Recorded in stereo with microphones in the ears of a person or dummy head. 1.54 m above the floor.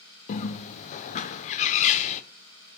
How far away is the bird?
About 0.6 m.